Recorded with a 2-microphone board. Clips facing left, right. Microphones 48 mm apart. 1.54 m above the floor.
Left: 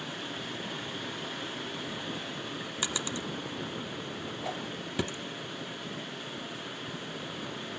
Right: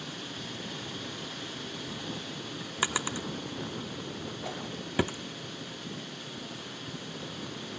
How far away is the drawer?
About 0.7 m.